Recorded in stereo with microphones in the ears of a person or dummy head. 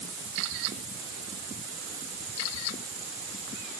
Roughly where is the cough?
I don't hear a cough.